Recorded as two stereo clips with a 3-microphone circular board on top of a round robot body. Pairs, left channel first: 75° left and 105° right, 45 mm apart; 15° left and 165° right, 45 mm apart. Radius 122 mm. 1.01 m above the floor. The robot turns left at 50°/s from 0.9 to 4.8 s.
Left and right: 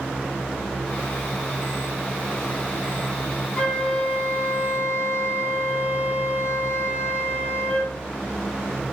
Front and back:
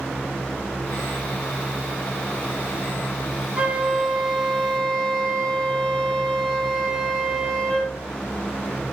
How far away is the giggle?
No giggle in this recording.